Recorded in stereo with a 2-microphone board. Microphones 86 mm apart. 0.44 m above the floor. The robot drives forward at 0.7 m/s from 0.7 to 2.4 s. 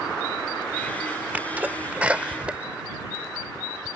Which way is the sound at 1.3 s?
20° right (ahead or behind).